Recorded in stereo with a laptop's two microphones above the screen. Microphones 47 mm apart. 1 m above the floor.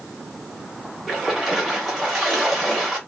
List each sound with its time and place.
1.1 s a splash: centre (ahead or behind), 0.9 m